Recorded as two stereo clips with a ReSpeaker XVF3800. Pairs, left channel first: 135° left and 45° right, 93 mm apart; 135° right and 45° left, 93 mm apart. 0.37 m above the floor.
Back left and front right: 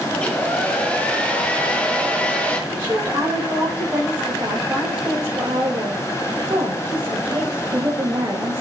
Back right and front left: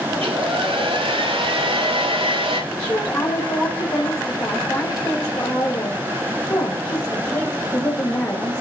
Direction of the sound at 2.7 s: 95° right.